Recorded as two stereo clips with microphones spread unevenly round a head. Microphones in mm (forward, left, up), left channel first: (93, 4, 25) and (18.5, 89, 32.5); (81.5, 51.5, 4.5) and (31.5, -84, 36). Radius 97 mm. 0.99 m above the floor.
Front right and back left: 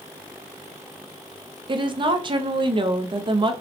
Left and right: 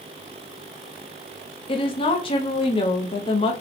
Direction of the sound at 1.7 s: 95° left.